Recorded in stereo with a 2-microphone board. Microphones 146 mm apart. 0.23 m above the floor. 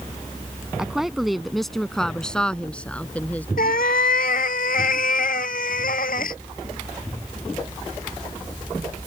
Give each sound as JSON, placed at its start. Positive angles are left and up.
{"t": 0.8, "sound": "a woman speaking", "side_deg": -5}
{"t": 3.6, "sound": "a cat meowing", "side_deg": 85}